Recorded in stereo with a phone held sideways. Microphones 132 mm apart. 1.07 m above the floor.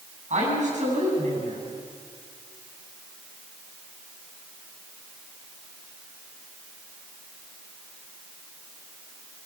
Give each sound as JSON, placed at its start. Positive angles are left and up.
{"t": 0.3, "sound": "a woman speaking", "side_deg": -60, "distance_m": 9.0}